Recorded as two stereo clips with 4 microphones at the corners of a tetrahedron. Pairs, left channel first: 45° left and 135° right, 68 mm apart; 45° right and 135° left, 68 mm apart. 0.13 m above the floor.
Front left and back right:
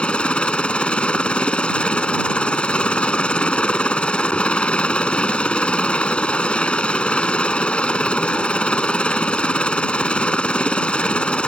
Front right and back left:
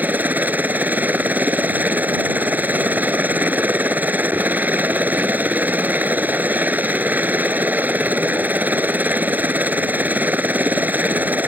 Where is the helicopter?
100° left.